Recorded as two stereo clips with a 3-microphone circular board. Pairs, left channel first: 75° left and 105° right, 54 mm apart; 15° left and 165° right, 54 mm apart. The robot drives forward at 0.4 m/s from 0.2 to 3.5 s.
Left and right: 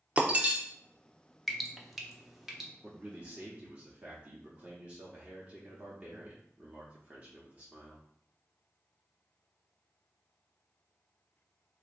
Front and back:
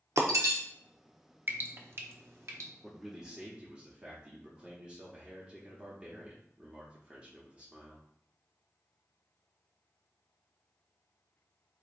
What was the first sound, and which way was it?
Breaking glass, 165° right.